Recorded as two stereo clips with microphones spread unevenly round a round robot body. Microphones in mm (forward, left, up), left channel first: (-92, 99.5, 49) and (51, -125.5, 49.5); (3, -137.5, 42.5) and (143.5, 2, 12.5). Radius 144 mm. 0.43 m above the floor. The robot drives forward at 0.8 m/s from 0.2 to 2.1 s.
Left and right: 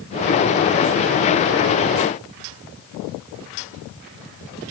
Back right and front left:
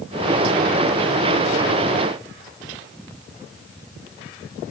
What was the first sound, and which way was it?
Only background noise.